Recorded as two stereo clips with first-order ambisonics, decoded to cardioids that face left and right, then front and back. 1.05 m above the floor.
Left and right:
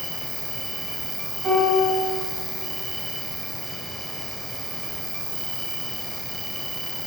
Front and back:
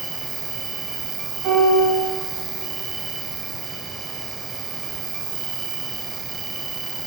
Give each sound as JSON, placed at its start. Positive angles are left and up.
{"t": 0.0, "sound": "an insect", "azimuth_deg": -155, "distance_m": 1.8}
{"t": 1.4, "sound": "a piano", "azimuth_deg": -135, "distance_m": 4.5}